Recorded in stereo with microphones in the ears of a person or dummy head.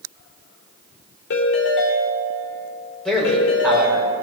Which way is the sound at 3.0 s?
5° left (ahead or behind).